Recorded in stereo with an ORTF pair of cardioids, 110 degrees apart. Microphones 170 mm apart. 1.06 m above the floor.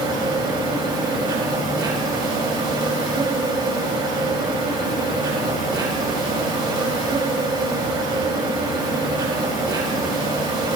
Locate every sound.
0.0 s an insect: 25° right, 5 m